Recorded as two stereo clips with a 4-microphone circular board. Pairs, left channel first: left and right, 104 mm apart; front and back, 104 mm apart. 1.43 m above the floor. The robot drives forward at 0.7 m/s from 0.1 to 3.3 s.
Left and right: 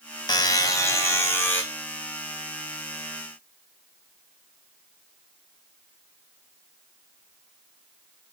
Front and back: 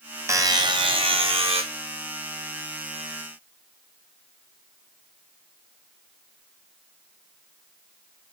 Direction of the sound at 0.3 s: 125° left.